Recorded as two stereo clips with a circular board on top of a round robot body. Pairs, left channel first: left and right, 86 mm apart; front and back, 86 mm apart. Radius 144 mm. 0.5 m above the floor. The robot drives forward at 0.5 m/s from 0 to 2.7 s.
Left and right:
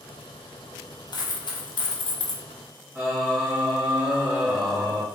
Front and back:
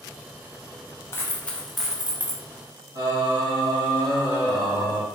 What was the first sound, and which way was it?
A dropped coin, 60° left.